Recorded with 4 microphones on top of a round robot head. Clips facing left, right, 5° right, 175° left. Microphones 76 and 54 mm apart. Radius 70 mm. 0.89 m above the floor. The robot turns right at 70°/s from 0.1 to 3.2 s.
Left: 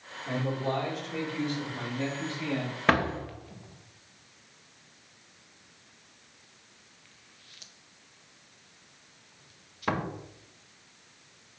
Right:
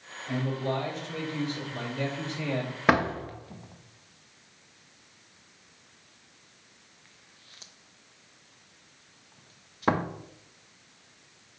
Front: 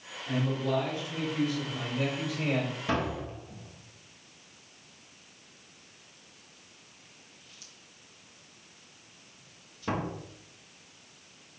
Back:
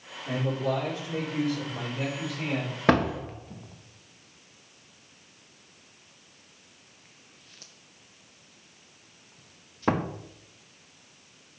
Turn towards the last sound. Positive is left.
turn(degrees=-145)